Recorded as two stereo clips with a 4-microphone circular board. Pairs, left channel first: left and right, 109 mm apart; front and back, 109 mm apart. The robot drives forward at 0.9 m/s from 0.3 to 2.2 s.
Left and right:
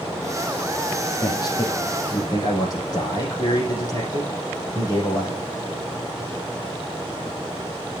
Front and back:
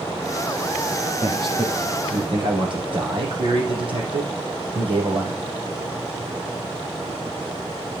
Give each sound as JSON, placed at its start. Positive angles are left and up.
{"t": 1.2, "sound": "a man speaking", "azimuth_deg": 140, "distance_m": 5.0}